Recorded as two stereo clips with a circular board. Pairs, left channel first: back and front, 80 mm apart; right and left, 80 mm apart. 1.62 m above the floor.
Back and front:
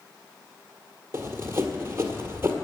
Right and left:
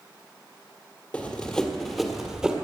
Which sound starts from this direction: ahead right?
Running footsteps, at 1.1 s.